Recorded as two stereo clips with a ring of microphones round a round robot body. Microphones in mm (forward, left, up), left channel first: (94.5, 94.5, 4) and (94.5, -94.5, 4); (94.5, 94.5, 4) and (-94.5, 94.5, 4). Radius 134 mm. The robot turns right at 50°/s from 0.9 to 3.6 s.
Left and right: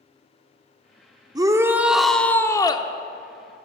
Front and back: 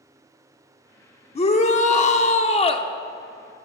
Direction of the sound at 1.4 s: 35° right.